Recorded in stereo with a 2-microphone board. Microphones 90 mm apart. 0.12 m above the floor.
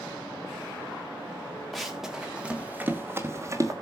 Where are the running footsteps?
Centre (ahead or behind), 2.5 m; by 3.7 s 35° right (ahead or behind), 2.5 m.